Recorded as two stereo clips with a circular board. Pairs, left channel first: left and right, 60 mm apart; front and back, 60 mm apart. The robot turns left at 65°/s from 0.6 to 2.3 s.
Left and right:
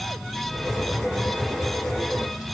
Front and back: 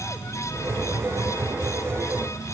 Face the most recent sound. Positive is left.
No sound to turn to.